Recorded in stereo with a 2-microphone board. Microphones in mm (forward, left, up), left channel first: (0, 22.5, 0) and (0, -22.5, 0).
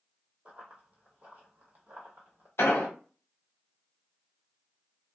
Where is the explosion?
60° left (ahead or behind), 0.8 m.